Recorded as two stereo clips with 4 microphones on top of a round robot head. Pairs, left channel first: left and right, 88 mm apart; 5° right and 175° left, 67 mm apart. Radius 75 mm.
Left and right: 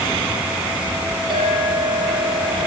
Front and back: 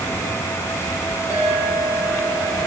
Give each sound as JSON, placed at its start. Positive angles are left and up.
{"t": 1.3, "sound": "a clink", "azimuth_deg": -115, "distance_m": 1.6}